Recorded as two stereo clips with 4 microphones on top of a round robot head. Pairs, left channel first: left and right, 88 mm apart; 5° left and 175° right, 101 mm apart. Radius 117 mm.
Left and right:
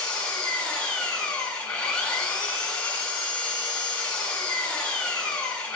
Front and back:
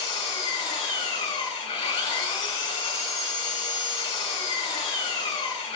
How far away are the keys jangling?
No keys jangling in this recording.